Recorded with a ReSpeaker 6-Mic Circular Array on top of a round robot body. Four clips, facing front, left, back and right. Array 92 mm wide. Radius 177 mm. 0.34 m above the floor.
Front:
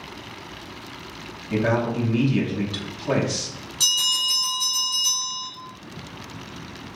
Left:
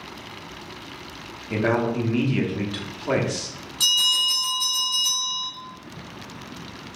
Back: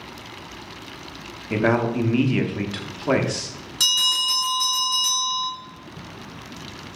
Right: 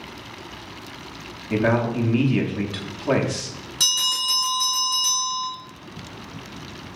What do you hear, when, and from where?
1.5 s a man speaking: 170° right, 1.0 m
3.8 s a bell: 145° right, 2 m